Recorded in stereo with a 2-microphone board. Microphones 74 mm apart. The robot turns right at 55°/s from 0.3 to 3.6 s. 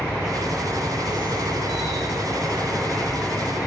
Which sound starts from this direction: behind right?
An insect, at 0.0 s.